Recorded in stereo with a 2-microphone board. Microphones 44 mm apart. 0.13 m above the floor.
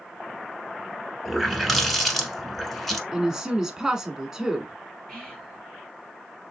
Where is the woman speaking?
15° right (ahead or behind), 1.0 m.